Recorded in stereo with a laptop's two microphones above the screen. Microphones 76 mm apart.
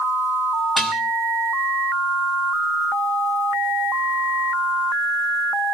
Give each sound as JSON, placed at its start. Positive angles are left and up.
{"t": 0.8, "sound": "dishes clattering", "side_deg": 0, "distance_m": 5.0}